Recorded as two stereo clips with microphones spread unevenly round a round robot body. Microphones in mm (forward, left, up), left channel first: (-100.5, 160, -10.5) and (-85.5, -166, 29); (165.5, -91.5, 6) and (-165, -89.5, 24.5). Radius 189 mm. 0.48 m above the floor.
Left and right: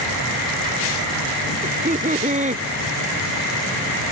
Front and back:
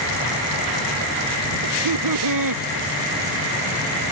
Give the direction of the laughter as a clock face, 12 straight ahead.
5 o'clock.